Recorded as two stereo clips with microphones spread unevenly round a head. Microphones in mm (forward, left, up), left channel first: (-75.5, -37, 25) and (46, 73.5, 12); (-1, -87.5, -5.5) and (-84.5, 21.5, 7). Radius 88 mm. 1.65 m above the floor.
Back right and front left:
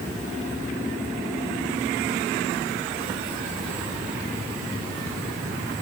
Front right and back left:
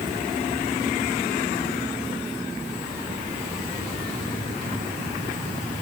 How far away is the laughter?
No laughter in this recording.